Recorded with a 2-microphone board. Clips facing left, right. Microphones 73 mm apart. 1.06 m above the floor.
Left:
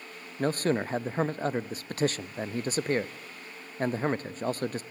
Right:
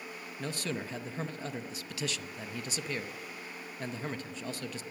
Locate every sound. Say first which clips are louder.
0.4 s a man speaking: left 10 dB; 45° left (ahead or behind), 0.8 m